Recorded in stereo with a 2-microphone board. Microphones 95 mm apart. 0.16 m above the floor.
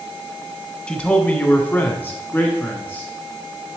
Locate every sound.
0.9 s a man speaking: 10° left (ahead or behind), 1.2 m; by 3.1 s 20° left (ahead or behind), 1.6 m